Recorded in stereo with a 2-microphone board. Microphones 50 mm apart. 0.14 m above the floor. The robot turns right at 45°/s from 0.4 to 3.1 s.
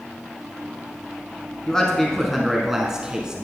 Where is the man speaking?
15° left (ahead or behind), 1.4 m; by 3.4 s 15° right (ahead or behind), 1.4 m.